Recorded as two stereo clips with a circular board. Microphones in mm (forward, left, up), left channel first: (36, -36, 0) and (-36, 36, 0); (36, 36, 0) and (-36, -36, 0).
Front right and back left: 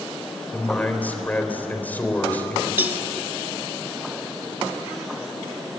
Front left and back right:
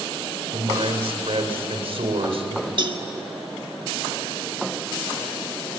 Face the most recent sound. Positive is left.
turn(degrees=-160)